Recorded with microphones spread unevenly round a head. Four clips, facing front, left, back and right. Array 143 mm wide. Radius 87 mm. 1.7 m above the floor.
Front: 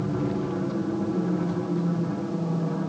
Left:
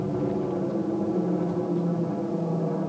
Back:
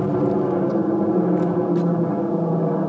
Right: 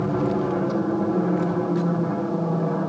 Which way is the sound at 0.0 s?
165° right.